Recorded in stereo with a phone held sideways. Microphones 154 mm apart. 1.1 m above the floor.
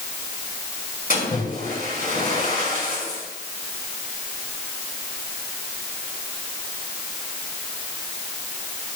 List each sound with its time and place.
1.1 s a splash: 65° left (ahead or behind), 6 m